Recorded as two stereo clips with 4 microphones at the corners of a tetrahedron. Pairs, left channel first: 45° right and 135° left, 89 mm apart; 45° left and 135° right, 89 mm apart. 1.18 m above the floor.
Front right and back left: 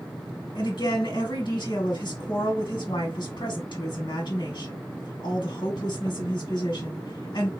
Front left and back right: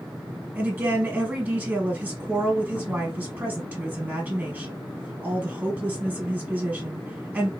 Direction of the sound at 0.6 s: 70° right.